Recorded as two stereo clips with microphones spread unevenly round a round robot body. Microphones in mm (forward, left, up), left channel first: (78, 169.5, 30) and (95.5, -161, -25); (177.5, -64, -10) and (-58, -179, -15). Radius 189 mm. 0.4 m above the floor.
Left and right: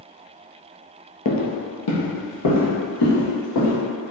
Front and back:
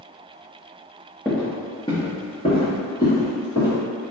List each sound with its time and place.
1.2 s footsteps: 100° left, 0.5 m